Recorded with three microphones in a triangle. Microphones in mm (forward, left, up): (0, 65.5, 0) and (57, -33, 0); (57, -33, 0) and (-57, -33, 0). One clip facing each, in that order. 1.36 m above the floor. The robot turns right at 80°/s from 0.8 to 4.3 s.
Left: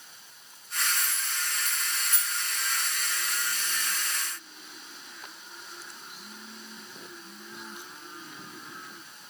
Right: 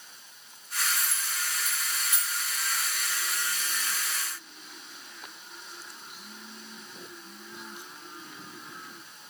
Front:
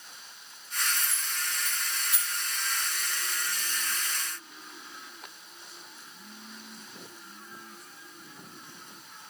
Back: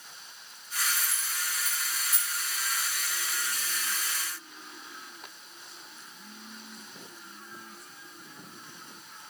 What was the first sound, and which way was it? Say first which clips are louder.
Keys jangling: even, even; 80° right.